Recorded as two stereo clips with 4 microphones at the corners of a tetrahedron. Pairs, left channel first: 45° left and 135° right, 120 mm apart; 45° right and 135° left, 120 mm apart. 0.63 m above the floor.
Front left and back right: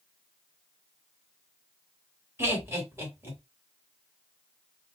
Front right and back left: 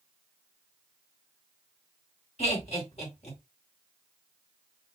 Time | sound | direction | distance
2.4 | laughter | 65° right | 2.5 m